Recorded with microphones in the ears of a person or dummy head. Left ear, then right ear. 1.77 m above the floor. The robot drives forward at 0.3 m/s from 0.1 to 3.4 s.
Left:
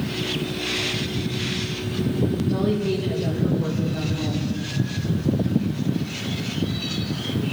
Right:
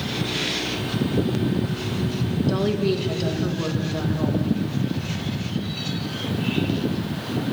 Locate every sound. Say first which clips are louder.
2.5 s a woman speaking: right 5 dB; 65° right (ahead or behind), 2.5 m; by 4.5 s 70° right (ahead or behind), 2.5 m